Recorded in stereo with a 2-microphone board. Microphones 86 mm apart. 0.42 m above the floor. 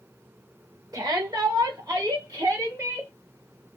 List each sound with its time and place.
0.9 s a shout: 40° right (ahead or behind), 1.2 m; by 3.1 s 35° right (ahead or behind), 1.9 m